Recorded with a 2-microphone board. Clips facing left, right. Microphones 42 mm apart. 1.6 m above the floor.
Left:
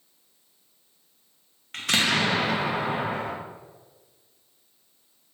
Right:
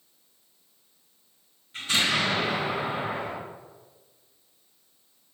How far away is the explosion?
About 0.6 m.